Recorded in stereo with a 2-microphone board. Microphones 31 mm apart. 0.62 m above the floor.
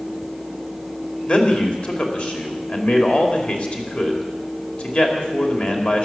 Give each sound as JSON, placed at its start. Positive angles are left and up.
{"t": 1.3, "sound": "a man speaking", "side_deg": 45, "distance_m": 2.5}